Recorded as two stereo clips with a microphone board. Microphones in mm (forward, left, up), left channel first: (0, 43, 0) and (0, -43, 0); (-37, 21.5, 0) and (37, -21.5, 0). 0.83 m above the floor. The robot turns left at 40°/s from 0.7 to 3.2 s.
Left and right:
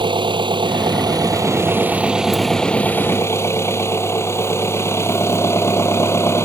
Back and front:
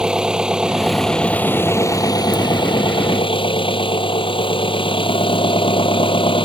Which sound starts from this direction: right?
An engine running, at 0.0 s.